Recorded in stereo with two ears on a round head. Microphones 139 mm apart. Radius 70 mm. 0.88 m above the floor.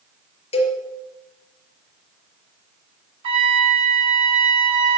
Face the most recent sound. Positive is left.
turn(degrees=-35)  # may be behind; listen again after turning